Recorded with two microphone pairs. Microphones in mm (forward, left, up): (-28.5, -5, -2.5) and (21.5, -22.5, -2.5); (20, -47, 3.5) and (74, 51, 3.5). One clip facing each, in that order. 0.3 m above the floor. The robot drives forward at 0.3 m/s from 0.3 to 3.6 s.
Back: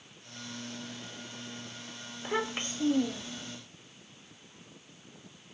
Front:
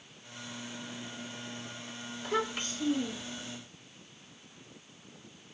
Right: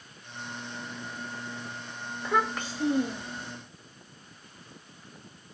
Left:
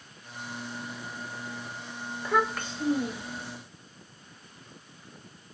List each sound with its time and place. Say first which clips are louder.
2.2 s a child speaking: even, left 1 dB; 145° left, 0.6 m; by 3.5 s 170° left, 0.8 m